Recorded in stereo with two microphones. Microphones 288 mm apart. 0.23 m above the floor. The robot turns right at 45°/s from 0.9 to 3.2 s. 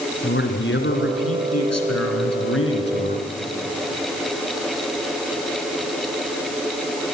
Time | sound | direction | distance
0.2 | a man speaking | 45° left | 3 m